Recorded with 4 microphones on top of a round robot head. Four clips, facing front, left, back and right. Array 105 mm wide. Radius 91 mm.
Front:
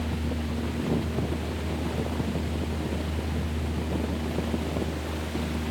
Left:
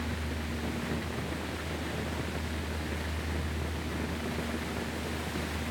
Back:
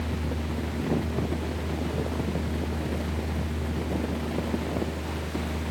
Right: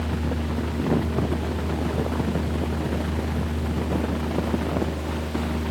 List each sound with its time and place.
Only background noise.